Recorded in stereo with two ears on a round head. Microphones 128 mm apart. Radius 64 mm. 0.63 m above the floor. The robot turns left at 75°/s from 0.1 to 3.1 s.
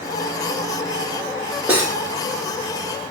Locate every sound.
1.7 s cutlery clinking: 10° right (ahead or behind), 1.6 m; by 1.9 s 30° right (ahead or behind), 1.6 m